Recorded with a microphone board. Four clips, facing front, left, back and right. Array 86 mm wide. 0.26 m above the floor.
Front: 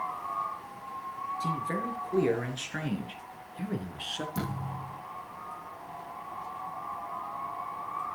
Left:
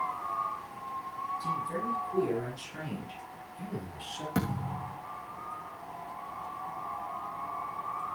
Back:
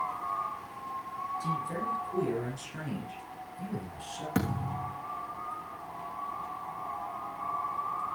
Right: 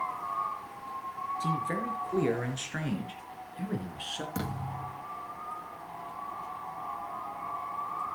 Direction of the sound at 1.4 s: 50° right.